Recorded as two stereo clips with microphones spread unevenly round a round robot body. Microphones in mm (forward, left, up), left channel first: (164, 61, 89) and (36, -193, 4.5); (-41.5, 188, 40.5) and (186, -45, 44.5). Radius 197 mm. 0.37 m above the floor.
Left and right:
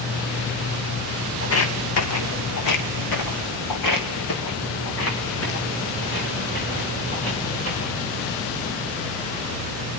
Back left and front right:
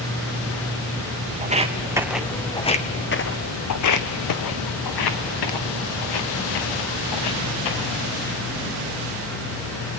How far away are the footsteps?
About 1.6 m.